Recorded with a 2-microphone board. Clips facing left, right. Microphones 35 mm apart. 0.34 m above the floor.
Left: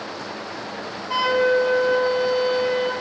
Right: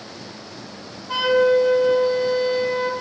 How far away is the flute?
About 1.6 m.